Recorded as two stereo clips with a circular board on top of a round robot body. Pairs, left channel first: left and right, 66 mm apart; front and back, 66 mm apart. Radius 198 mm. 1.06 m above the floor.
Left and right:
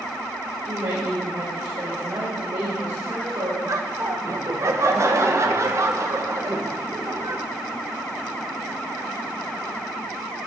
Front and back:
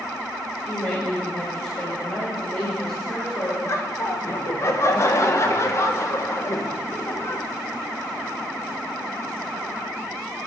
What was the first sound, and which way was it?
A woman speaking, 55° right.